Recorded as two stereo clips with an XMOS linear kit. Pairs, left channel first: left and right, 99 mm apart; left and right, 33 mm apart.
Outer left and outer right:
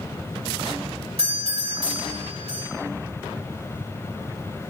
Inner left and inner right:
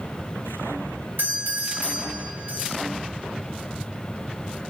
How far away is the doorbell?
About 4.5 m.